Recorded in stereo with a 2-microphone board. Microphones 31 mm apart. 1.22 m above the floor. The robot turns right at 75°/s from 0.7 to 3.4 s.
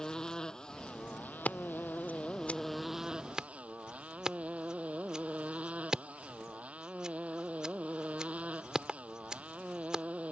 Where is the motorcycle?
15° left; by 10.3 s 140° right.